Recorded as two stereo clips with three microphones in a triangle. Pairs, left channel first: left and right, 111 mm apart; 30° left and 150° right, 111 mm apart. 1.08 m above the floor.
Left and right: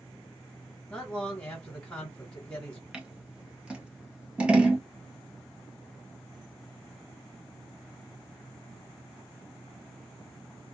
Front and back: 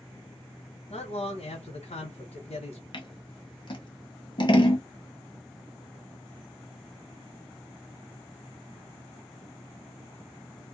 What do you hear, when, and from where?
0.9 s a man speaking: 15° left, 1.0 m
2.9 s scissors: 10° right, 0.8 m